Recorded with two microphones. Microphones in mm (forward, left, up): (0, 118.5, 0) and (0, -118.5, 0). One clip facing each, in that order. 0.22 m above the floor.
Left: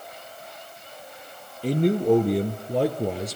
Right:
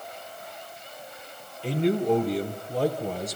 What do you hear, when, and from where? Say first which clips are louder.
1.6 s a man speaking: left 3 dB; 40° left (ahead or behind), 3 m; by 3.4 s 75° left (ahead or behind), 3.5 m